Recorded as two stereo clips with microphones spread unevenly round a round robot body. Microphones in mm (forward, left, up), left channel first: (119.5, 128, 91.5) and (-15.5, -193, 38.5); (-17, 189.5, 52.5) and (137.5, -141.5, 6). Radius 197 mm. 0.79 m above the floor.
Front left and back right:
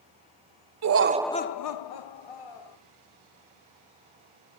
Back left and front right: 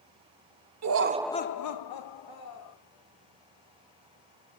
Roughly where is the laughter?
Right.